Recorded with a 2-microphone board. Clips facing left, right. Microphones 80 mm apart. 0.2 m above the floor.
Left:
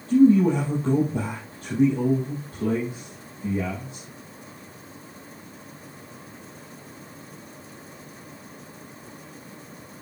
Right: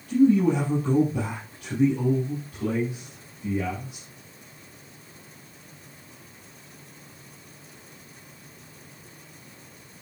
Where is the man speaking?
30° left (ahead or behind), 4.5 m.